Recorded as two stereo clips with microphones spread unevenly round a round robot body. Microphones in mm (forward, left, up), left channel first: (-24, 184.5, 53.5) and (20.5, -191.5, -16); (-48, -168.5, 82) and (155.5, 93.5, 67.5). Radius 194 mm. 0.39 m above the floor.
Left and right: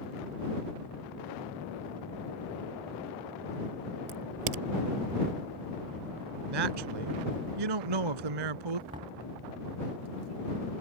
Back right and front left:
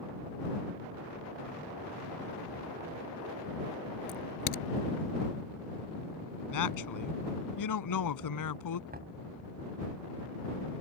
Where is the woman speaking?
100° right.